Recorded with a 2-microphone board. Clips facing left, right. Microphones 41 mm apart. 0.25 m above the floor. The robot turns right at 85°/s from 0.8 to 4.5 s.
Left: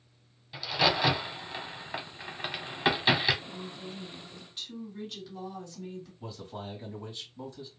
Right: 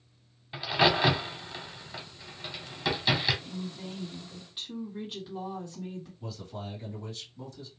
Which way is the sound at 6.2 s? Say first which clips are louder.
Even; 30° left (ahead or behind).